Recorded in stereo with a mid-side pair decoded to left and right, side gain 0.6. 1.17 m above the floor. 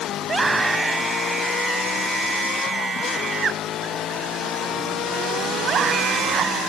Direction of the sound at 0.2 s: 20° right.